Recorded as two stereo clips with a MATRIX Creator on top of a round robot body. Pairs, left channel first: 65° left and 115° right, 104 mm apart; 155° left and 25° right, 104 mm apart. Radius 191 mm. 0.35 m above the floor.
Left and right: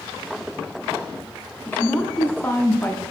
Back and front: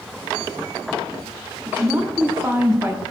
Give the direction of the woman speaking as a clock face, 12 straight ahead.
11 o'clock.